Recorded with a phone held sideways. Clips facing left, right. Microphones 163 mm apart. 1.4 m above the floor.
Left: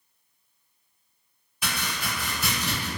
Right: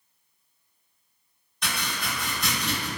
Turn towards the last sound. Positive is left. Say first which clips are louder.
# even
turn(degrees=5)  # may be behind; listen again after turning